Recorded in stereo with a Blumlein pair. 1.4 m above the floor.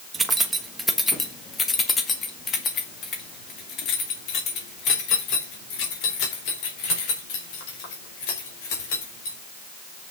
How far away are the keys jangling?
About 1.3 m.